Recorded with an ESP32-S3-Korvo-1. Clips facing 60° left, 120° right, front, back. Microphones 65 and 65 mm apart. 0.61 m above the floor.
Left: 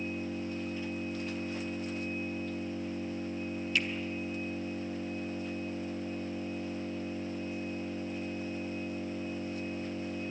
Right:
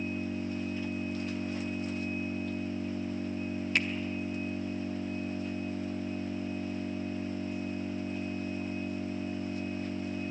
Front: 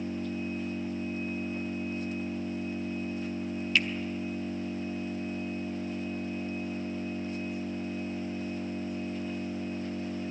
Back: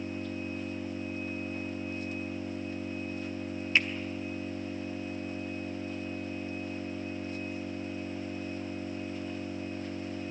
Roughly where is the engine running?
Right.